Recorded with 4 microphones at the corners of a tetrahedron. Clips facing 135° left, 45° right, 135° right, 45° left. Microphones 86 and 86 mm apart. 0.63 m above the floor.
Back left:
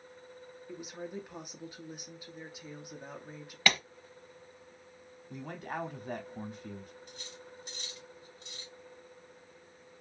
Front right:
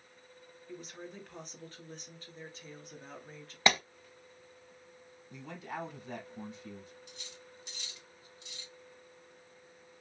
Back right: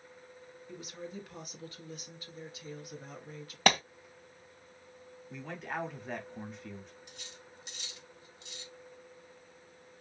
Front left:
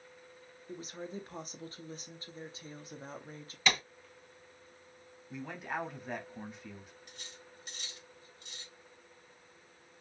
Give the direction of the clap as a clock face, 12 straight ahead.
4 o'clock.